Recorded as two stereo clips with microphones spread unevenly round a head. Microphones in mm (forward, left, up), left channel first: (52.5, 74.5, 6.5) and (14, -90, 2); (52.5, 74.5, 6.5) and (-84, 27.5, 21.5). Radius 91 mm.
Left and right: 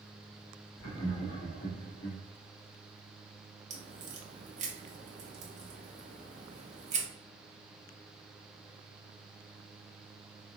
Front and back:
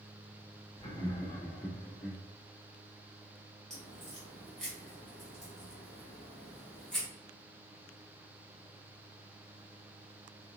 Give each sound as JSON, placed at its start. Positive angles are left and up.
{"t": 0.8, "sound": "laughter", "azimuth_deg": 75, "distance_m": 1.4}
{"t": 3.7, "sound": "a crack", "azimuth_deg": -75, "distance_m": 0.7}